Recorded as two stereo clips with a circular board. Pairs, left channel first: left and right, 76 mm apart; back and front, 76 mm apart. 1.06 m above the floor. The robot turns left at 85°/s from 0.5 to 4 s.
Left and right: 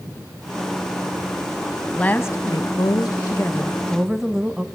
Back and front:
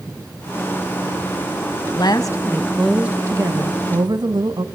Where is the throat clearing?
I don't hear throat clearing.